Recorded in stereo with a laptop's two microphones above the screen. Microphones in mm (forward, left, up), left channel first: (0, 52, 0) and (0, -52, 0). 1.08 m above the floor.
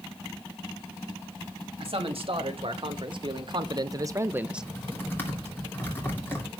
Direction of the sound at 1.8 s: 65° right (ahead or behind).